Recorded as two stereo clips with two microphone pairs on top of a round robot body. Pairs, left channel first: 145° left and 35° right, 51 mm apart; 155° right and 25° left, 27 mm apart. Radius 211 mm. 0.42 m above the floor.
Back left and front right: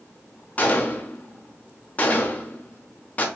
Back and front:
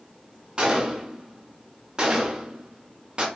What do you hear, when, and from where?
0.6 s a gunshot: 85° left, 0.9 m